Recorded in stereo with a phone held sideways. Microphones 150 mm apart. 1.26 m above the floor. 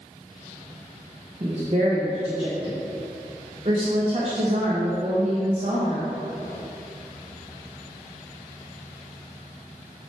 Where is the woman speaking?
40° right (ahead or behind), 1.0 m.